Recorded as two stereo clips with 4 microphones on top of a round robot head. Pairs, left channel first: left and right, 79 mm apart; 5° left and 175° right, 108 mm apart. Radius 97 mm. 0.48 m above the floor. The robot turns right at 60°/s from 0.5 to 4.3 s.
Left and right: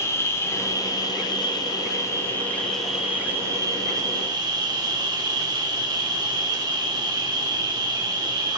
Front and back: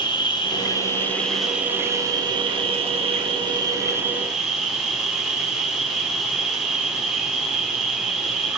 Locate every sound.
0.0 s an insect: 40° left, 1.6 m; by 8.6 s 90° right, 1.6 m